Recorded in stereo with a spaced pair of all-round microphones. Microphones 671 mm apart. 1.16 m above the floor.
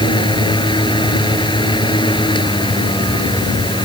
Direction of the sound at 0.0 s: 5° left (ahead or behind).